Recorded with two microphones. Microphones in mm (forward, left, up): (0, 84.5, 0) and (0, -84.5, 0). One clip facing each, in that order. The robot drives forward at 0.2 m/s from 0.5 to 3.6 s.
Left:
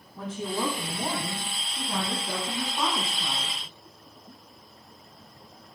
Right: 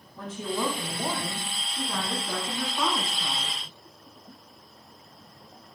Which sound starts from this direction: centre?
A woman speaking, at 0.2 s.